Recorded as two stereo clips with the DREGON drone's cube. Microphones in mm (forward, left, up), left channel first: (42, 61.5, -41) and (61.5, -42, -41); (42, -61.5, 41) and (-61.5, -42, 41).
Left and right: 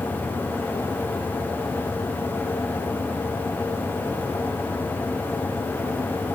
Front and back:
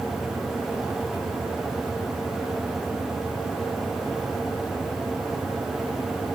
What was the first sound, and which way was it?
Only background noise.